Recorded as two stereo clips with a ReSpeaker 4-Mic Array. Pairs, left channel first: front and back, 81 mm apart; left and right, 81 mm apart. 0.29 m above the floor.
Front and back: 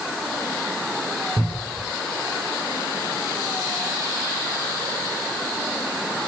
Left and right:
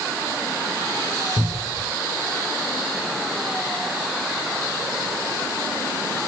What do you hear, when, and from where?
1.4 s a cupboard door: 160° right, 7 m